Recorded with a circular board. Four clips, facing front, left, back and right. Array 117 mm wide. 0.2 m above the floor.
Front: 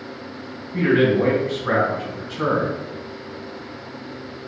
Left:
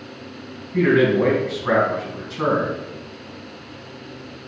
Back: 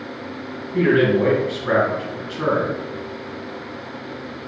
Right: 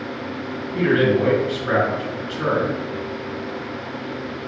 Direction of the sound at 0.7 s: 80° left.